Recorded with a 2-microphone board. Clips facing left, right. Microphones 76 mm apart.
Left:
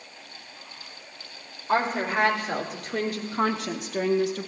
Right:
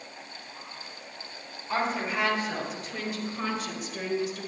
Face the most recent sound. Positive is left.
turn(degrees=70)  # may be behind; listen again after turning